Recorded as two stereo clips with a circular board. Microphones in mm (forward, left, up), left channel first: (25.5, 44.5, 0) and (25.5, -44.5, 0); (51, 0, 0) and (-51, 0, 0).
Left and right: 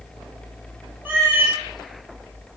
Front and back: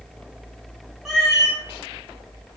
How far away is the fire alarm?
No fire alarm in this recording.